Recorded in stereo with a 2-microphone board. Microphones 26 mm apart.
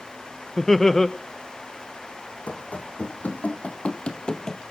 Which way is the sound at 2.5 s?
70° left (ahead or behind).